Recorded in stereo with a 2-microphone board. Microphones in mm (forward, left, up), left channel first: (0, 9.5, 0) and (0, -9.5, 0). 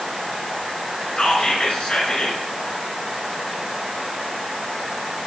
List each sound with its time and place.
1.2 s whispering: 55° left (ahead or behind), 2.5 m